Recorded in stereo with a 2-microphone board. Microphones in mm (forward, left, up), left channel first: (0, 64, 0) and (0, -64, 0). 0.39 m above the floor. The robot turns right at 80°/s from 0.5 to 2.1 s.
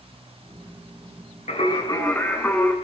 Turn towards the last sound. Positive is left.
turn(degrees=165)